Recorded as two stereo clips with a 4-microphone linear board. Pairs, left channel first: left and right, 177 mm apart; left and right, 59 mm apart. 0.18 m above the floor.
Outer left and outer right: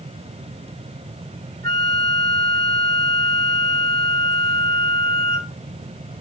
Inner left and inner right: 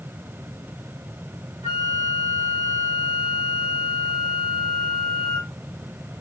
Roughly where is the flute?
Right.